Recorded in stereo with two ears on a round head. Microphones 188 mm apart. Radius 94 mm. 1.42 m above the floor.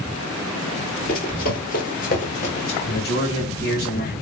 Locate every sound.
1.1 s running footsteps: 45° left (ahead or behind), 1.9 m; by 2.8 s 25° left (ahead or behind), 1.8 m
2.9 s a man speaking: 55° left (ahead or behind), 2 m